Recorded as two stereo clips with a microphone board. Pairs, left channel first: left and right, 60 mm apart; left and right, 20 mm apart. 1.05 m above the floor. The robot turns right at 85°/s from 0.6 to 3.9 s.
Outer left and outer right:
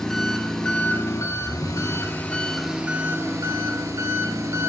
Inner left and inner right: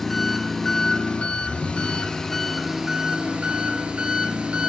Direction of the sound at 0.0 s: 15° left.